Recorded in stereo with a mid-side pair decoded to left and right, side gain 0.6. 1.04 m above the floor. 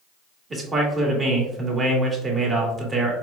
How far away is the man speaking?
About 2 m.